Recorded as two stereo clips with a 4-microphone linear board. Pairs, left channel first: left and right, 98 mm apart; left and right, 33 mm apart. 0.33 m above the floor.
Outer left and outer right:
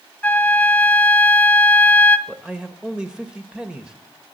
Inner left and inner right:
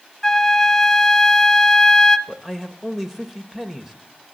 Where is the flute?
10° left (ahead or behind), 1.0 m.